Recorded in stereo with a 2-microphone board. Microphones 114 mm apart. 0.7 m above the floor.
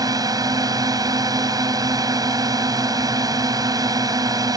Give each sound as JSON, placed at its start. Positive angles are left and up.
{"t": 0.0, "sound": "a drone", "side_deg": -35}